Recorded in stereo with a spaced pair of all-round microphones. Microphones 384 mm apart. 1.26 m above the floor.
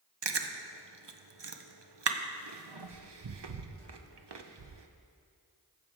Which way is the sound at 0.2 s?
85° right.